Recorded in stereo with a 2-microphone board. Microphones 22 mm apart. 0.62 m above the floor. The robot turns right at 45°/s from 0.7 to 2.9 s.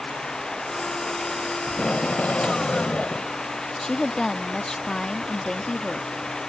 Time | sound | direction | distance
1.7 | tape being pulled | 55° left | ?
3.8 | a woman speaking | 25° left (ahead or behind) | ?